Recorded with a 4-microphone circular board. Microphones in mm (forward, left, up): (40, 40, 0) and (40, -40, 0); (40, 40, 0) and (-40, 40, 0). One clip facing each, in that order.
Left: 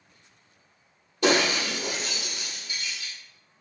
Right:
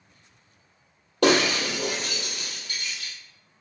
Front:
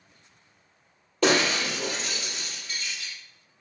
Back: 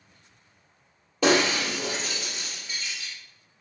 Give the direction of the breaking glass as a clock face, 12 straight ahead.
3 o'clock.